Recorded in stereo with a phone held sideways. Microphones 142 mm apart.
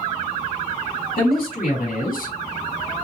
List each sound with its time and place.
1.2 s a man speaking: 80° left, 2.5 m; by 2.4 s 85° left, 1.8 m